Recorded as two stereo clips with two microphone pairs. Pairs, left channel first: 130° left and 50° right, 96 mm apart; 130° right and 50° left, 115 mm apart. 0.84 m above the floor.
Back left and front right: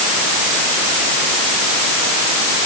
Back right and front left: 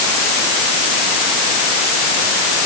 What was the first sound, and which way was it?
Only background noise.